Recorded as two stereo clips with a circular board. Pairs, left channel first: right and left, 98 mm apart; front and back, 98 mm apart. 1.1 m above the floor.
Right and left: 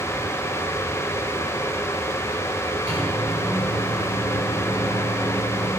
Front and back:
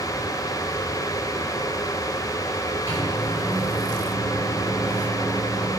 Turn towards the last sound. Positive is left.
turn(degrees=120)